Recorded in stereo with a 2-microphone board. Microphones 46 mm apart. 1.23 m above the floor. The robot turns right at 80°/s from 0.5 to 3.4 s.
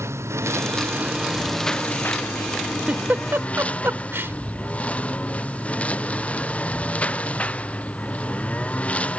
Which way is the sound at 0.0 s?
85° right.